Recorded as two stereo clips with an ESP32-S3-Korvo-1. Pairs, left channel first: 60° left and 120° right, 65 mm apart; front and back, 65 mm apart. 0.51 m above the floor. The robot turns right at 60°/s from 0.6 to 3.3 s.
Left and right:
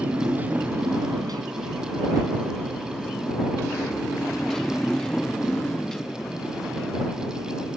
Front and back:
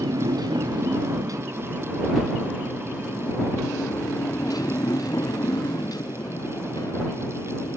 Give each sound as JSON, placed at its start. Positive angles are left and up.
{"t": 0.0, "sound": "a motorcycle", "azimuth_deg": 175}